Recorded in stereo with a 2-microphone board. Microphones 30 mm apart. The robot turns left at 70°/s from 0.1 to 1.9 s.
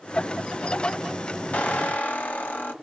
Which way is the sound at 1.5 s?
60° left (ahead or behind).